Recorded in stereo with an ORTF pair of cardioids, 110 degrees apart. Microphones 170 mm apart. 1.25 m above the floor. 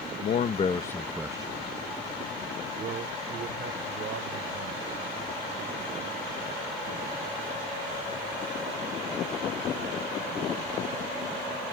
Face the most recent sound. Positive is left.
turn(degrees=-65)